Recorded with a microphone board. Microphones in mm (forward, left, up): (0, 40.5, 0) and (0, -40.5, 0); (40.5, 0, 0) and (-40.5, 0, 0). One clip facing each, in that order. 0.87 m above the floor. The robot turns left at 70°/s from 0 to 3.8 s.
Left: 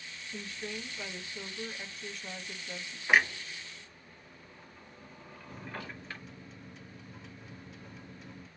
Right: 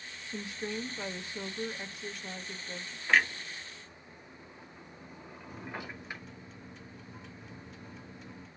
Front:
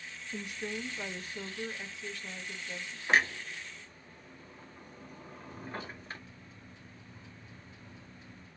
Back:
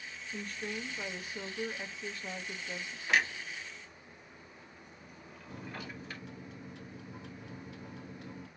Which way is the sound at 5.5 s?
Straight behind.